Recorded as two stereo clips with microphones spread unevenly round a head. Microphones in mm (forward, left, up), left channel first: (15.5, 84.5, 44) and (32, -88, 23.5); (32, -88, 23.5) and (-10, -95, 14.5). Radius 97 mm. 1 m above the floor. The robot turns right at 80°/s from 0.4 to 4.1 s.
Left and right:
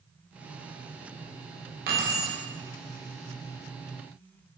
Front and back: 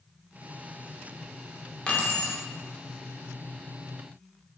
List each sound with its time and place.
1.9 s keys jangling: 55° right, 1.8 m; by 2.4 s 15° right, 1.8 m